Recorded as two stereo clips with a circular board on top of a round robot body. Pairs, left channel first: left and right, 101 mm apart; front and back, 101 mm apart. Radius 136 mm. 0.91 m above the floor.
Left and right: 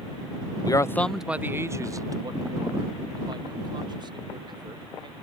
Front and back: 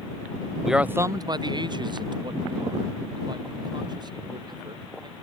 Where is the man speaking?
90° left; by 5.1 s 135° right.